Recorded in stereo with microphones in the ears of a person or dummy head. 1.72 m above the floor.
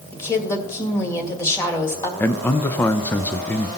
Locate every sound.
0.1 s a woman speaking: 15° left (ahead or behind), 2 m
2.2 s a man speaking: 10° left (ahead or behind), 0.5 m